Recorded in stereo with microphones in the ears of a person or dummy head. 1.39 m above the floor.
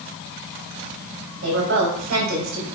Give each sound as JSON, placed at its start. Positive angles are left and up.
{"t": 1.4, "sound": "a woman speaking", "side_deg": -70, "distance_m": 3.0}